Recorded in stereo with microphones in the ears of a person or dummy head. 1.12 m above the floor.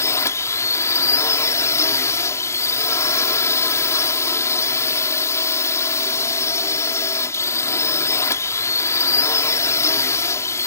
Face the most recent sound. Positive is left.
turn(degrees=20)  # may be behind; listen again after turning